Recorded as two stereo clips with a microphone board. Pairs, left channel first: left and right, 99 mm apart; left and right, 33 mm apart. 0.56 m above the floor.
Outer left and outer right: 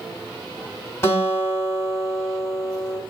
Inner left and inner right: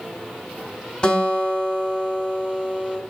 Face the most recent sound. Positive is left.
turn(degrees=30)  # may be behind; listen again after turning